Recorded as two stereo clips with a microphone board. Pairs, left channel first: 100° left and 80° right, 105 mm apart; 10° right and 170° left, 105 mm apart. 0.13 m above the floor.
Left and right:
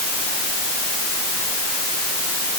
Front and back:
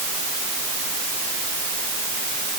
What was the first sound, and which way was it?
Only background noise.